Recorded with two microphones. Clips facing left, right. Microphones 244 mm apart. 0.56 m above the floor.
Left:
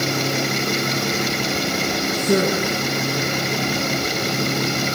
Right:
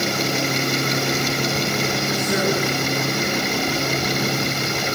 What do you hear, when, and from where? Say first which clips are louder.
2.1 s a woman speaking: left 5 dB; 40° left (ahead or behind), 9 m